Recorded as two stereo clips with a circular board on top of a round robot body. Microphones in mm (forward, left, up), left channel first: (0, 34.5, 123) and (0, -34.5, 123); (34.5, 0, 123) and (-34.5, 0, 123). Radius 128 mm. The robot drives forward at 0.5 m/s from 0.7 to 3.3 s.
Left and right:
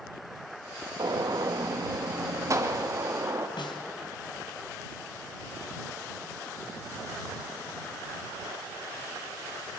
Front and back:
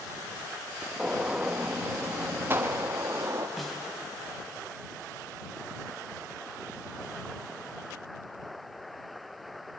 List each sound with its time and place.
1.0 s a gunshot: 100° right, 1.8 m; by 3.5 s 135° right, 2.5 m
3.6 s a snare drum: 90° left, 2.5 m